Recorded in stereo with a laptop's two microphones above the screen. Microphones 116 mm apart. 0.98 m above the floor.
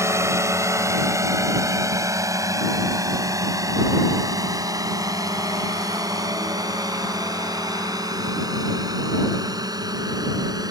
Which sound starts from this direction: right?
A drone, at 0.0 s.